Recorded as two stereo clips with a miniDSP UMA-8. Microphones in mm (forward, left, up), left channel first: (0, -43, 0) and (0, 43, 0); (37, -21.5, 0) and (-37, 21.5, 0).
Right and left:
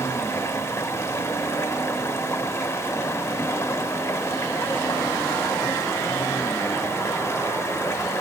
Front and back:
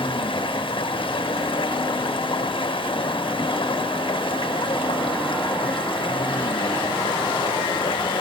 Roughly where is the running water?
Ahead right.